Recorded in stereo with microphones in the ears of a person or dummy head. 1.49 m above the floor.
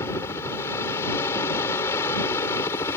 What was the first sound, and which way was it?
A helicopter, 20° left (ahead or behind).